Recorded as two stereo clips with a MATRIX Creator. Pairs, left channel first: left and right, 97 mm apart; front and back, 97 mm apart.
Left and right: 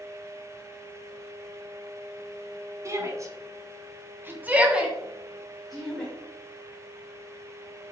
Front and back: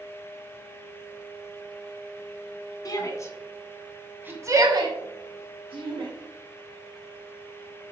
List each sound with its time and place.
2.9 s a shout: 40° right, 2 m; by 6.1 s 175° left, 3 m